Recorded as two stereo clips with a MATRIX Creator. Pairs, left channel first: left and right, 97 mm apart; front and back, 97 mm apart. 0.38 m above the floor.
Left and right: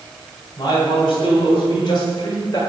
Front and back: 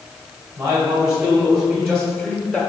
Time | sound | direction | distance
0.6 | a man speaking | 135° left | 2.5 m